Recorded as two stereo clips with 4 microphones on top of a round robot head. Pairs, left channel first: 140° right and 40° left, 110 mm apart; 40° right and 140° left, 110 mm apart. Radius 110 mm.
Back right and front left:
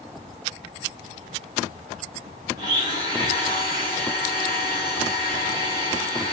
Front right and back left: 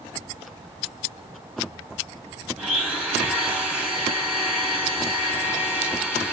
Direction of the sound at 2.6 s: 60° left.